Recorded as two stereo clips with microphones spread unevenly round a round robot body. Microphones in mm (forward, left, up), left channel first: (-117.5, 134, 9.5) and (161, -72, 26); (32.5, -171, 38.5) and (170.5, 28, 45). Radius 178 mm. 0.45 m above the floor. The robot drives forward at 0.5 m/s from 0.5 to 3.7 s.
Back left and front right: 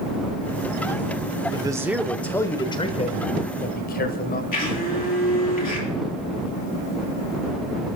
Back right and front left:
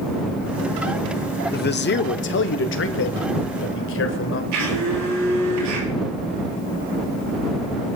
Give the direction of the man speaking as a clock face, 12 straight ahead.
4 o'clock.